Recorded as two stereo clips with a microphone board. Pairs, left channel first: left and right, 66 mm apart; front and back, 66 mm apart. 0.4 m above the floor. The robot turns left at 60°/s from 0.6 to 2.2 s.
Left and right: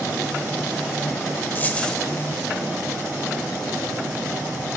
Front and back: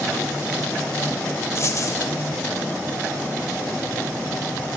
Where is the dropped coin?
35° left, 0.6 m; by 2.0 s 10° left, 0.6 m.